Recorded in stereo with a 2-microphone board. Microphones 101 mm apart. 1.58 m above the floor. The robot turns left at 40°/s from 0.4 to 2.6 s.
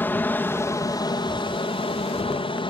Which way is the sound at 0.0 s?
160° left.